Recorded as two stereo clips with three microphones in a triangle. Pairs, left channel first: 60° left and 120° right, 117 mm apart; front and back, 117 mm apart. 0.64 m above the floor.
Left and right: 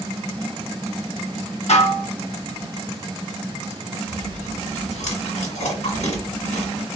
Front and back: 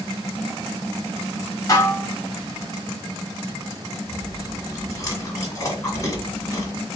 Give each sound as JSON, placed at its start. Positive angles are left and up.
{"t": 1.7, "sound": "dishes clattering", "azimuth_deg": 60, "distance_m": 1.3}
{"t": 4.1, "sound": "chewing", "azimuth_deg": 65, "distance_m": 1.9}